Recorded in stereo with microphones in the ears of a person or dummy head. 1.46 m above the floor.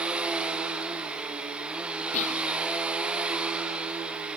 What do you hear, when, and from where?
0.0 s a machine running: 5° right (ahead or behind), 0.9 m
2.1 s whispering: 35° left (ahead or behind), 1.3 m